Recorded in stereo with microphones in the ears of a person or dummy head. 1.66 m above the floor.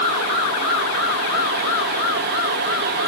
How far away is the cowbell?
I don't hear a cowbell.